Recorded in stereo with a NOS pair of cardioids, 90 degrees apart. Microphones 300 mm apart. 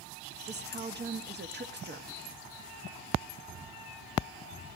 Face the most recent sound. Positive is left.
turn(degrees=-35)